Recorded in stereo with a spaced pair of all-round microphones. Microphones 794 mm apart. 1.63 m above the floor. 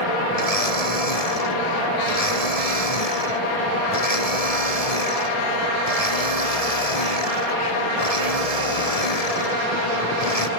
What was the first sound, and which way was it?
A blender, 50° left (ahead or behind).